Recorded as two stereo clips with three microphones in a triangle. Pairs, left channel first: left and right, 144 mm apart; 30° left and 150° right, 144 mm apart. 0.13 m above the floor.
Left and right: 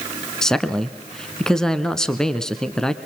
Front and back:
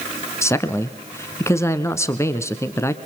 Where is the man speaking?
10° left, 1.0 m.